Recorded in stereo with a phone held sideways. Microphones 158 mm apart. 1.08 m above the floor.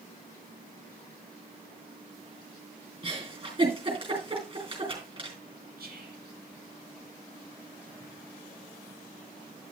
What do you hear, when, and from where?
3.0 s a giggle: 35° right (ahead or behind), 4.5 m
5.8 s whispering: 75° right (ahead or behind), 2.5 m